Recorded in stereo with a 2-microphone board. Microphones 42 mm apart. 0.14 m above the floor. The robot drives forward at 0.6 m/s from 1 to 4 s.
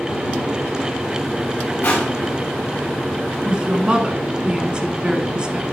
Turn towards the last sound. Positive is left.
turn(degrees=-25)  # may be behind; listen again after turning